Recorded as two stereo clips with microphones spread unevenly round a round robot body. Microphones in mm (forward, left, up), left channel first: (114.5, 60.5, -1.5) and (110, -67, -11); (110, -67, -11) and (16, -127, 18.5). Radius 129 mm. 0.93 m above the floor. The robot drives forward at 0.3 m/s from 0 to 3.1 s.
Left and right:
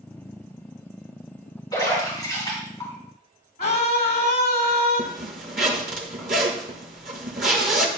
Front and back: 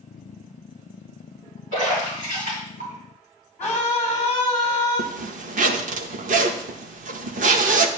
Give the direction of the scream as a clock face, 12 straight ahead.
8 o'clock.